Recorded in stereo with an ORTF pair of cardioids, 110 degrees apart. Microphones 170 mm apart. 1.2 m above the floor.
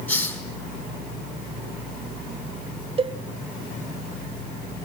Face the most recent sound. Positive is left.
turn(degrees=-35)